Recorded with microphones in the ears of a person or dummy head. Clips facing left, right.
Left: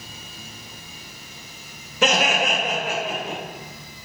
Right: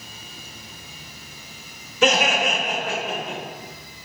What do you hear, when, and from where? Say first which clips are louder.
2.0 s laughter: right 1 dB; 55° left (ahead or behind), 1.3 m; by 3.4 s centre (ahead or behind), 1.5 m